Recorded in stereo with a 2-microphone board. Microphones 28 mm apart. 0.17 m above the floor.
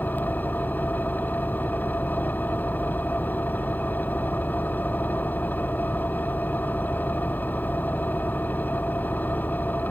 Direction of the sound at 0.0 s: 80° left.